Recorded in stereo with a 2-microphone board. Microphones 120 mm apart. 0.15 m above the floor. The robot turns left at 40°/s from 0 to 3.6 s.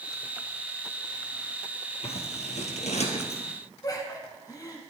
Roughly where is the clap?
No clap in this recording.